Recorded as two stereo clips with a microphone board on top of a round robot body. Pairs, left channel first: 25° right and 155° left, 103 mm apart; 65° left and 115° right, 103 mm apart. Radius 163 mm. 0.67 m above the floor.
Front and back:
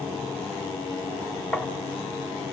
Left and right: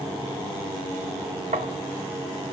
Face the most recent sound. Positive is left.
turn(degrees=-105)